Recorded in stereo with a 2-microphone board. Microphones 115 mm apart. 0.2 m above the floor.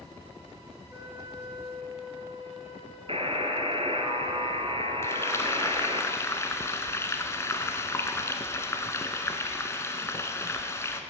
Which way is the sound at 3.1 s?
55° right (ahead or behind).